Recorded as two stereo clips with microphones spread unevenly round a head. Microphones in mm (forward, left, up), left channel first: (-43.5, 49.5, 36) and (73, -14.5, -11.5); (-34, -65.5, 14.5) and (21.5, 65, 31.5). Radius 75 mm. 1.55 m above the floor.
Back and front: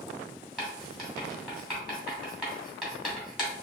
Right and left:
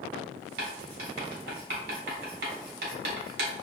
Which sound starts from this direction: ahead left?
Writing, at 0.6 s.